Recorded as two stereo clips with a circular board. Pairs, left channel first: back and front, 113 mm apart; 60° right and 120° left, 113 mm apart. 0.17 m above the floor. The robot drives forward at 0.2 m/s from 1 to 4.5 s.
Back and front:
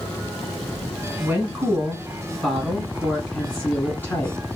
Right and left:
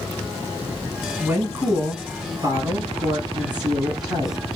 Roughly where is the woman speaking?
Left.